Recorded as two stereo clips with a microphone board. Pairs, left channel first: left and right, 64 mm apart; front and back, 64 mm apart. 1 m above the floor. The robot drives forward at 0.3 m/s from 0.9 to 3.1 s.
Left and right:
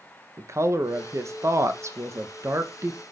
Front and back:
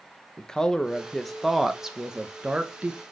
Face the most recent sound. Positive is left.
turn(degrees=-125)